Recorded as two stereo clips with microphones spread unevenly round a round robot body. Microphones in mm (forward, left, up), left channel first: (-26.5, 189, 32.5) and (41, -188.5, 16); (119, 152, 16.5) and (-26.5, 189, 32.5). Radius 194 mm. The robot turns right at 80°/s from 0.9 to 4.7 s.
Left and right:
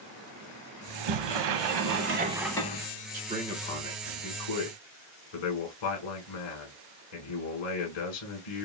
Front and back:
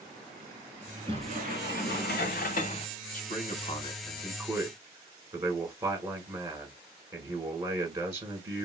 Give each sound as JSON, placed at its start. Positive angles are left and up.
{"t": 0.9, "sound": "a sliding door", "azimuth_deg": -115, "distance_m": 0.8}
{"t": 3.1, "sound": "a man speaking", "azimuth_deg": -15, "distance_m": 2.0}